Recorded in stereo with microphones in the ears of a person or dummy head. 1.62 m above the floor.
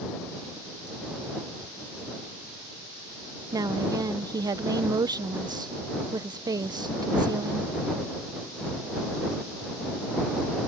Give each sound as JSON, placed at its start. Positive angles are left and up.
{"t": 3.5, "sound": "a woman speaking", "side_deg": -20}